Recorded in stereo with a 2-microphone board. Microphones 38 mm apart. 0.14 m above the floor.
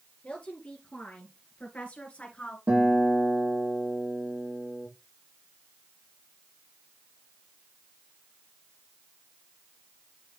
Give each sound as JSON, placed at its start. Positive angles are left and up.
{"t": 0.2, "sound": "a woman speaking", "side_deg": 35, "distance_m": 3.0}
{"t": 2.7, "sound": "a guitar", "side_deg": -70, "distance_m": 4.5}